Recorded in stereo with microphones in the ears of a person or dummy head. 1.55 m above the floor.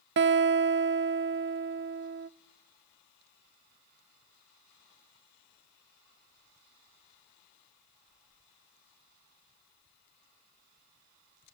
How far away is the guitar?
About 0.7 m.